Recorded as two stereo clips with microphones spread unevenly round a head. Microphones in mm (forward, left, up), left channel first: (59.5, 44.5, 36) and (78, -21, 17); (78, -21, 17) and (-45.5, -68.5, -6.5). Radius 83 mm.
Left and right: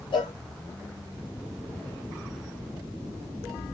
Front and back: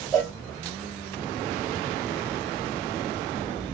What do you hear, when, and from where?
0.1 s a cowbell: 95° left, 1.6 m